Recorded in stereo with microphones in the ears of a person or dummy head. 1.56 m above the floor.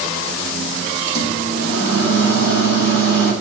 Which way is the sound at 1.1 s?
60° right (ahead or behind).